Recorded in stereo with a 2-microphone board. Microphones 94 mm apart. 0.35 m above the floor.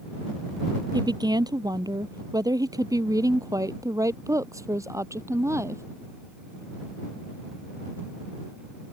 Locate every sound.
0.9 s a woman speaking: 50° right (ahead or behind); by 5.8 s 35° right (ahead or behind)